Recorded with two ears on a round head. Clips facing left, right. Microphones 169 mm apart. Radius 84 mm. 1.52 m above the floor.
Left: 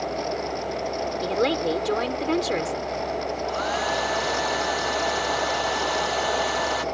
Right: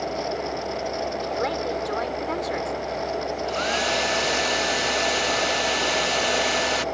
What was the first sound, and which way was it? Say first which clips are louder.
A woman speaking: left 7 dB; 40° left (ahead or behind).